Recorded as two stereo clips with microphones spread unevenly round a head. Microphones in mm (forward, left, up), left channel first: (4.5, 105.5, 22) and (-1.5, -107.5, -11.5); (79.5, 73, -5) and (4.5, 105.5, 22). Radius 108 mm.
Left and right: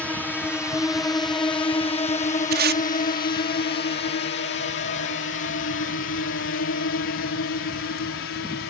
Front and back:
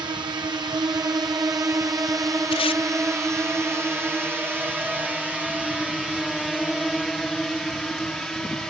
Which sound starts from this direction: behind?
A drone, at 0.0 s.